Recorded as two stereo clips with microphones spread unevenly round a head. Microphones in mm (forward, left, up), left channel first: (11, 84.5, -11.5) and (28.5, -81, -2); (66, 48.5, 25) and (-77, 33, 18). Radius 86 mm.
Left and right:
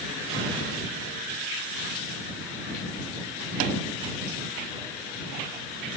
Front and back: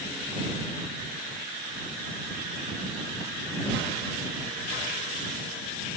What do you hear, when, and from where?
Only background noise.